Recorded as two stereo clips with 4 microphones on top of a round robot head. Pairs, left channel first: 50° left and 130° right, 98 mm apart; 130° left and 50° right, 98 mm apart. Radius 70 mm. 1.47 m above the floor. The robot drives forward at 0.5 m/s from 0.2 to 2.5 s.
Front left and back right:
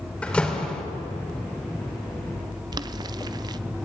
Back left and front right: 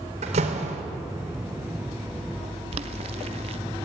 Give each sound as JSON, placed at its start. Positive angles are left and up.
{"t": 0.2, "sound": "a door slam", "azimuth_deg": -30, "distance_m": 3.5}
{"t": 2.7, "sound": "boiling", "azimuth_deg": -80, "distance_m": 0.7}